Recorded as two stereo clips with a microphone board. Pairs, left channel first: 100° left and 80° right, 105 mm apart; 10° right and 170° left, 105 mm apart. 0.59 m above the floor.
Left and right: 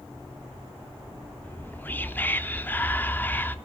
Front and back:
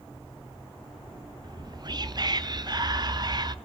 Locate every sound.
1.4 s whispering: 160° left, 0.7 m